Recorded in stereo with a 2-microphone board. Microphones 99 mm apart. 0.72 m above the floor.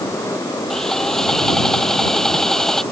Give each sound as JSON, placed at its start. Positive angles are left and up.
{"t": 0.7, "sound": "sawing", "side_deg": 5}